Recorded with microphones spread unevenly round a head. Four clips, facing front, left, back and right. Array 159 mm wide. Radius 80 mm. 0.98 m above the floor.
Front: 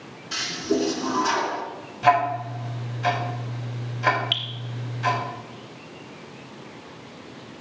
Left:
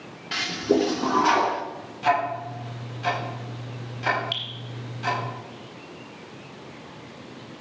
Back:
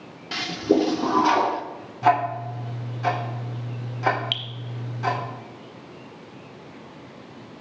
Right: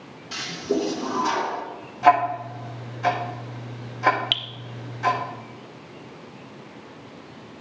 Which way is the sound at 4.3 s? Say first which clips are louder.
Right 2 dB, front 2 dB; 90° right.